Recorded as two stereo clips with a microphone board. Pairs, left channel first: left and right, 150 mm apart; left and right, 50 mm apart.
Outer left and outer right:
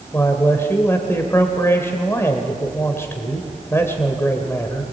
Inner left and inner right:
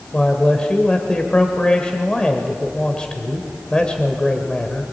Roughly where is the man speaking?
Centre.